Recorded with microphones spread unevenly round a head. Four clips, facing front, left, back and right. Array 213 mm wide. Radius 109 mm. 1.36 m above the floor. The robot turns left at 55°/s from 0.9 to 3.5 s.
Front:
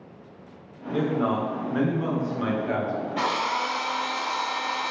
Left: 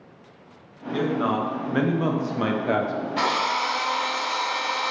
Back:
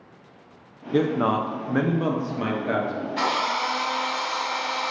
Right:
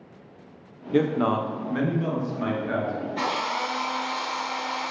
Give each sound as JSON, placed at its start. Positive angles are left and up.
{"t": 0.9, "sound": "a man speaking", "azimuth_deg": -165, "distance_m": 0.5}
{"t": 3.2, "sound": "a drill", "azimuth_deg": 60, "distance_m": 1.3}